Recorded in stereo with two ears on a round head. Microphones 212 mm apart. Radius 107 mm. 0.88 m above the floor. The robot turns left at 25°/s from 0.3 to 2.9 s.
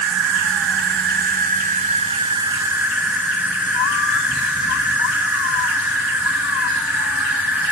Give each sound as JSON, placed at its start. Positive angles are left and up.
{"t": 0.0, "sound": "an insect", "azimuth_deg": -110, "distance_m": 0.9}